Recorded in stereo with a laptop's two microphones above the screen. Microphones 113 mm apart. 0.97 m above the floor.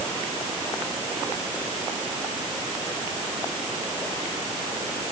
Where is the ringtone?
No ringtone in this recording.